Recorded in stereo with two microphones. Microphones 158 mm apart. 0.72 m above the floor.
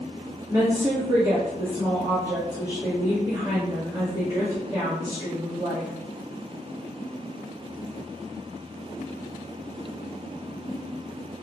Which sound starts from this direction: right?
A woman speaking, at 0.5 s.